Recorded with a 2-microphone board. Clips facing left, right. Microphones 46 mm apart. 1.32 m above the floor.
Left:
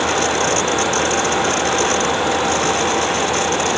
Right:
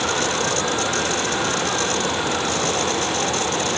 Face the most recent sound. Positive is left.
No sound to turn to.